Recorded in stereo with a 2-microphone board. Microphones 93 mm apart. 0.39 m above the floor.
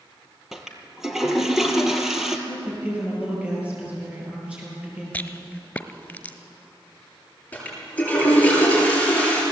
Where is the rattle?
15° left (ahead or behind), 1.1 m.